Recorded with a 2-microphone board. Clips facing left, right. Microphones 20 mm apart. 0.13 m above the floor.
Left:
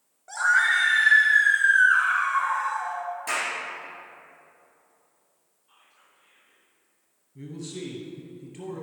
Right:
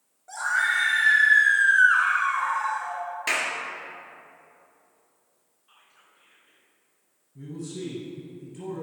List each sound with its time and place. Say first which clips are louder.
0.3 s a scream: left 3 dB; 25° left (ahead or behind), 1.7 m; by 3.0 s 35° right (ahead or behind), 1.7 m
3.3 s a clap: right 3 dB; 50° right (ahead or behind), 2.0 m
5.7 s whispering: right 1 dB; 30° right (ahead or behind), 1.6 m
7.3 s a man speaking: right 1 dB; 35° left (ahead or behind), 2.5 m